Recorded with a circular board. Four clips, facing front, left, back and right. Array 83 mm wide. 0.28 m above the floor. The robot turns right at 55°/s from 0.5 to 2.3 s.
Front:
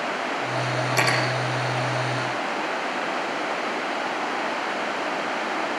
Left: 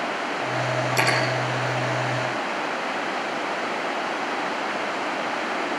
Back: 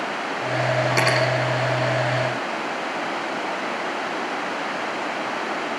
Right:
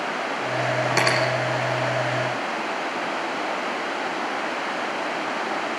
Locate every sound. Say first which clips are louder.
0.9 s cutlery clinking: right 1 dB, even; 110° right, 8.5 m; by 1.2 s 95° right, 8.5 m